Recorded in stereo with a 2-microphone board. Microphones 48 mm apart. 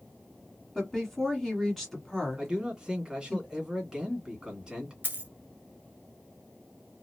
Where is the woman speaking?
5° left (ahead or behind), 1.4 m.